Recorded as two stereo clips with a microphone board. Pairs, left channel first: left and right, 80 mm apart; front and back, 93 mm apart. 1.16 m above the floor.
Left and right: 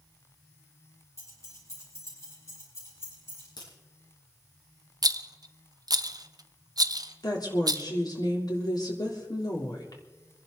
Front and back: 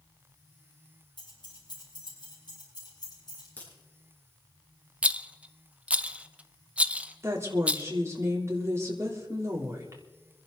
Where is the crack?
70° left, 7 m.